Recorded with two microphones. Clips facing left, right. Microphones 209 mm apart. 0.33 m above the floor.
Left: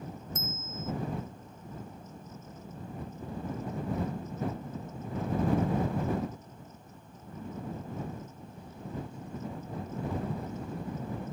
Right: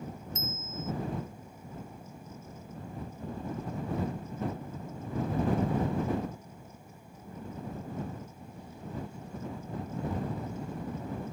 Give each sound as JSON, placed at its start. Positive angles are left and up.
{"t": 0.3, "sound": "a bicycle bell", "side_deg": 50}